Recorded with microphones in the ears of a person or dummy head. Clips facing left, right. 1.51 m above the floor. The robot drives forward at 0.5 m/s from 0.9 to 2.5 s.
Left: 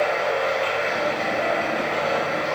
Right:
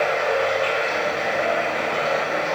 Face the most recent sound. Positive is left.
turn(degrees=45)  # may be behind; listen again after turning